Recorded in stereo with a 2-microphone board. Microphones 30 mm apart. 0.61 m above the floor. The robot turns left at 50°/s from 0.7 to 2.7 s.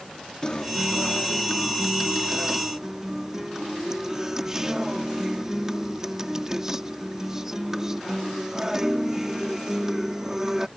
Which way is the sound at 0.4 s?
70° left.